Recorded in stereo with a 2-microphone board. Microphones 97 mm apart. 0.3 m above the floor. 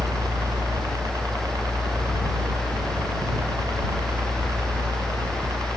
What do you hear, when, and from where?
0.0 s a helicopter: 40° right (ahead or behind)